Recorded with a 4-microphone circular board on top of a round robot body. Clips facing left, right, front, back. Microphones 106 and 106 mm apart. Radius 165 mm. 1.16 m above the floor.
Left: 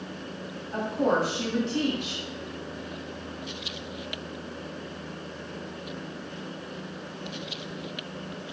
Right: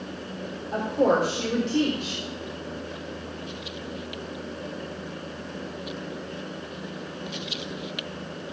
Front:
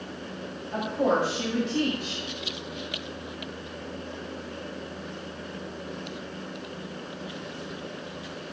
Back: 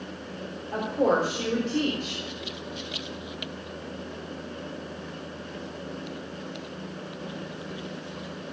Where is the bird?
No bird in this recording.